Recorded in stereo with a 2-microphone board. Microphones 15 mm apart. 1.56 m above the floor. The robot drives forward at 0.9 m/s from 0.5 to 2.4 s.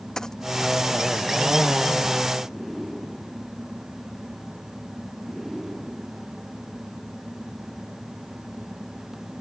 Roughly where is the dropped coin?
Left.